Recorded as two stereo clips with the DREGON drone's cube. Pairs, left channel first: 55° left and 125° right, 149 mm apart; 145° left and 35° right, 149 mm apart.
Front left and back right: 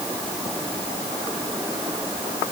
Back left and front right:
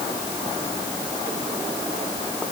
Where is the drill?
No drill in this recording.